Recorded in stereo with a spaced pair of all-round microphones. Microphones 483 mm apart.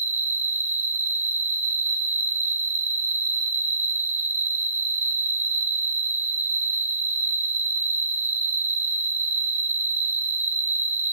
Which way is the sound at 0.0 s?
75° right (ahead or behind).